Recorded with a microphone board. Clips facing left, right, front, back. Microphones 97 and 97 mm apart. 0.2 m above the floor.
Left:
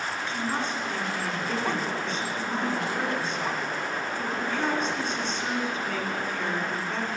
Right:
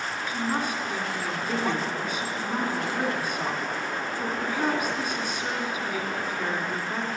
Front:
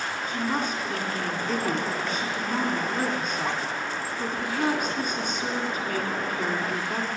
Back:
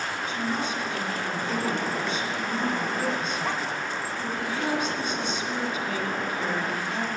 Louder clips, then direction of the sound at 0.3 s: Right 3 dB, front 2 dB; 15° right.